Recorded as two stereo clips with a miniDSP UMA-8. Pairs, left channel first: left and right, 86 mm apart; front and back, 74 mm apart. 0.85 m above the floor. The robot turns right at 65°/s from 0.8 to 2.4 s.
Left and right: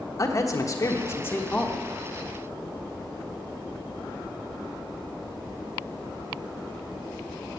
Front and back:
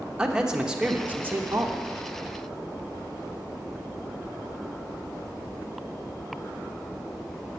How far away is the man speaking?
About 1.1 m.